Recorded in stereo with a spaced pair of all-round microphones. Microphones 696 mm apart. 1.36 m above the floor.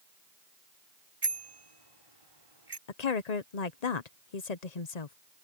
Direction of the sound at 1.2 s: 45° right (ahead or behind).